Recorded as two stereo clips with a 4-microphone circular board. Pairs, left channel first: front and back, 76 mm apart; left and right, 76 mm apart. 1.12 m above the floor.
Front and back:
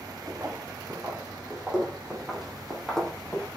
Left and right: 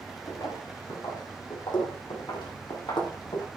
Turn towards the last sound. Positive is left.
turn(degrees=75)